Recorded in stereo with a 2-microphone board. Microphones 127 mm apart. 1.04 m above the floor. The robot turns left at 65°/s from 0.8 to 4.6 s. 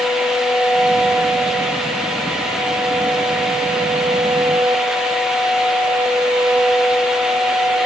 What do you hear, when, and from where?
Only background noise.